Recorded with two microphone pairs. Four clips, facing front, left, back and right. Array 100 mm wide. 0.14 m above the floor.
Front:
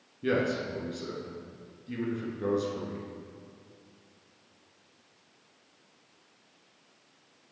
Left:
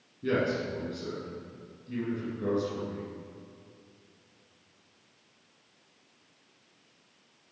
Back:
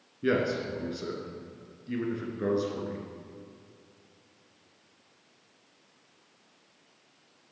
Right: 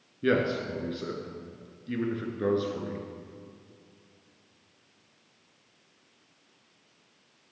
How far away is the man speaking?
About 2 m.